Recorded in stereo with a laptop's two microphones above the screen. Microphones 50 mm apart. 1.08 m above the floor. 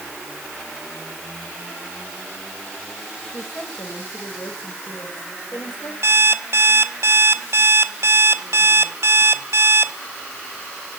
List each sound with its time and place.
3.3 s a woman speaking: 55° left (ahead or behind), 4.5 m
6.0 s an alarm clock: 70° right (ahead or behind), 1.1 m